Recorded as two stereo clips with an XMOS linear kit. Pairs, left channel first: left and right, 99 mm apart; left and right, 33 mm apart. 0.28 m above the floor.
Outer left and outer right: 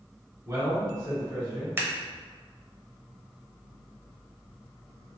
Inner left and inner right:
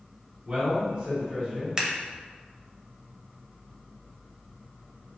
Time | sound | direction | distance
0.5 | a man speaking | 30° right (ahead or behind) | 1.6 m
1.8 | scissors | 20° right (ahead or behind) | 0.6 m